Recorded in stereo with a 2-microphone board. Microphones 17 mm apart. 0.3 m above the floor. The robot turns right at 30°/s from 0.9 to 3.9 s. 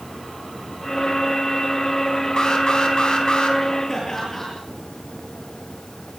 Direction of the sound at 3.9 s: 25° left (ahead or behind).